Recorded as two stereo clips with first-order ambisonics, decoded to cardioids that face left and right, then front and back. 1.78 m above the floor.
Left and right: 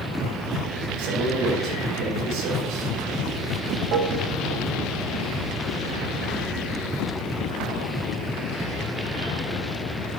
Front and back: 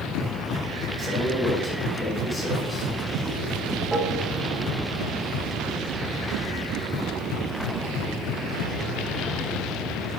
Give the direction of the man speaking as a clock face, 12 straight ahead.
3 o'clock.